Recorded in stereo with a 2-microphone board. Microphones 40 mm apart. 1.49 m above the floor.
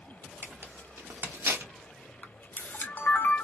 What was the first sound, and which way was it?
Tearing paper, 70° right (ahead or behind).